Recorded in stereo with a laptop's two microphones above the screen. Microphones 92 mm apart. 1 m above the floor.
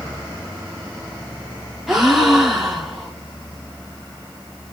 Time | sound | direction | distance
1.9 | a gasp | 5° right (ahead or behind) | 0.7 m